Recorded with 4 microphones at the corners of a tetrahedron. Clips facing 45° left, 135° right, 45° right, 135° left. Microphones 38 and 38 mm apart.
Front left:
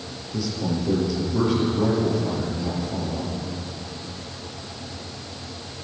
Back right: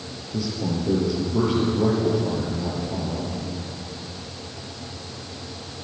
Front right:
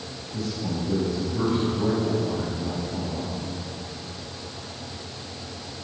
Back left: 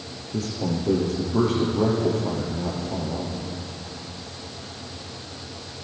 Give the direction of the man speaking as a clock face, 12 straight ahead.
7 o'clock.